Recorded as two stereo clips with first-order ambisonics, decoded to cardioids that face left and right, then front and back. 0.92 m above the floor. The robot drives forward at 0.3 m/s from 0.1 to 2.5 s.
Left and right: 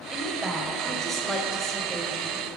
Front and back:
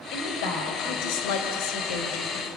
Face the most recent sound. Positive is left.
turn(degrees=-10)